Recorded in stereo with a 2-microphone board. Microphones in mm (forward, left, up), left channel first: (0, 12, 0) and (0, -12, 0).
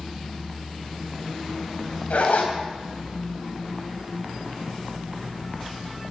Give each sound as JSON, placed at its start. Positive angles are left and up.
{"t": 2.1, "sound": "a zipper", "side_deg": 80, "distance_m": 2.5}